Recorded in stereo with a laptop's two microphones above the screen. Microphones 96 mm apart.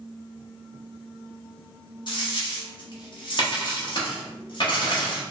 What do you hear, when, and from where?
2.1 s a dropped coin: 55° left (ahead or behind), 0.7 m